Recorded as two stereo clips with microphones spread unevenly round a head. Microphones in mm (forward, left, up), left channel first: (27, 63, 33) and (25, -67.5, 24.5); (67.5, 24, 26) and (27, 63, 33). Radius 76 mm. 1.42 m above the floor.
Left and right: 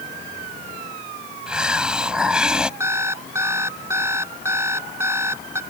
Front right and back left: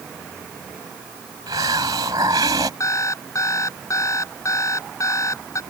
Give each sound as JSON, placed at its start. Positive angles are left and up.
{"t": 1.5, "sound": "a hiss", "azimuth_deg": -175}
{"t": 2.8, "sound": "an alarm clock", "azimuth_deg": -20}